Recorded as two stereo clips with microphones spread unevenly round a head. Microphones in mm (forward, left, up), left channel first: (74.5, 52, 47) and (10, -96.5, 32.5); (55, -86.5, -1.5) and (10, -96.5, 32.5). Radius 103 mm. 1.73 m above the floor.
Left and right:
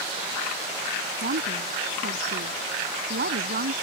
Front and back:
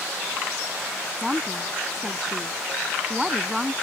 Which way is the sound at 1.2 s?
90° right.